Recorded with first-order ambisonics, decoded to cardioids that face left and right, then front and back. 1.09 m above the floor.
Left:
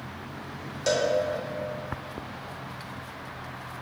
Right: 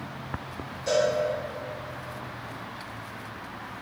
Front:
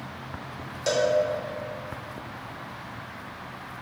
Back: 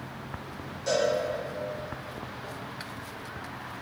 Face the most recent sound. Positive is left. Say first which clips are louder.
# right 1 dB, front 2 dB
turn(degrees=50)